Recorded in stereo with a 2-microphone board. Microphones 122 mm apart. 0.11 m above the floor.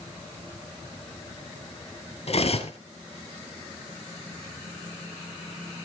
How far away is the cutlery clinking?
About 1.4 m.